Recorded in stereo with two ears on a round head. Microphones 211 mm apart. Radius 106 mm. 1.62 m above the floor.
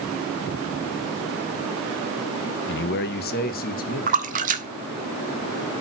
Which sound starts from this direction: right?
A splash, at 4.1 s.